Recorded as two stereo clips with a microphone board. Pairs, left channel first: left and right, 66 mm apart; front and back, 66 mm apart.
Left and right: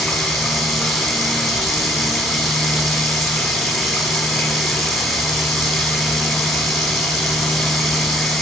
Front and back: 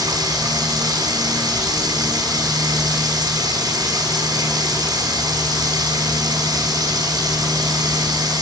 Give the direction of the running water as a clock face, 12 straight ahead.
6 o'clock.